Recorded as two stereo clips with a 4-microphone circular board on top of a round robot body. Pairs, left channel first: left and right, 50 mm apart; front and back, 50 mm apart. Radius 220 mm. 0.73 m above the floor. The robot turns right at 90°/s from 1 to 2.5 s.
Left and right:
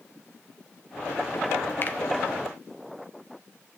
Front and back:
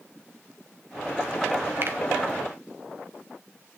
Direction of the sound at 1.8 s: 135° left.